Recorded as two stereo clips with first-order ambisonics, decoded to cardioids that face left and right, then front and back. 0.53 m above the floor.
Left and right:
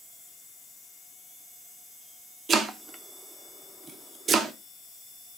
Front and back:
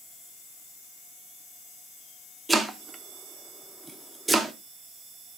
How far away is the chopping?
About 0.7 m.